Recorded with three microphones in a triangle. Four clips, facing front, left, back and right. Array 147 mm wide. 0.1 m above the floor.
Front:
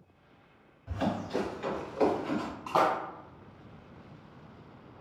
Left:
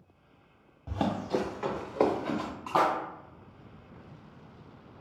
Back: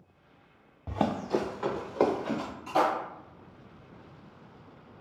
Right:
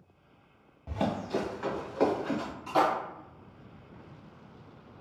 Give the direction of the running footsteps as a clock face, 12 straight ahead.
6 o'clock.